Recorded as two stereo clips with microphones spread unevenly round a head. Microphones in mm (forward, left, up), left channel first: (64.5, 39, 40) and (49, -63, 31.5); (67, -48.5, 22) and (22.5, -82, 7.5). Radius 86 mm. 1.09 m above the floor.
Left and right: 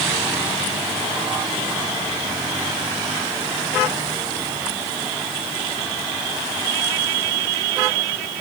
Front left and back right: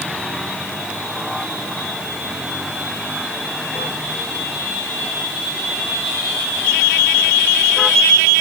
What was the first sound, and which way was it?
Only background noise.